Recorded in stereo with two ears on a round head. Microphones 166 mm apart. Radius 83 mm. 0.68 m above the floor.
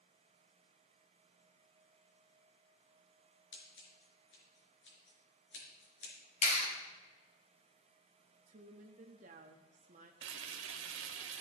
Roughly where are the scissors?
Left.